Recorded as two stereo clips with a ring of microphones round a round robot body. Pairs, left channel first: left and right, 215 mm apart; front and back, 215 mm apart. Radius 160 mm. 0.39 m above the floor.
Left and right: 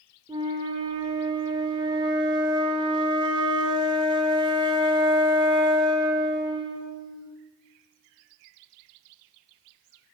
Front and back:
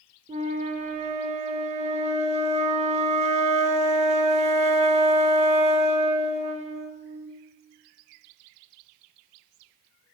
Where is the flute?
145° right, 0.9 m.